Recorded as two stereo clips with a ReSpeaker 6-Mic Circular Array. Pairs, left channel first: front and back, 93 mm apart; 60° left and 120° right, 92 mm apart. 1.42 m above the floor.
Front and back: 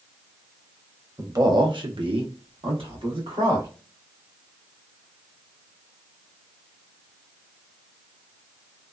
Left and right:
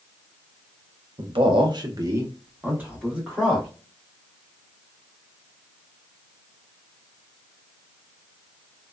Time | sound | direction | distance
1.2 | a man speaking | 125° right | 0.9 m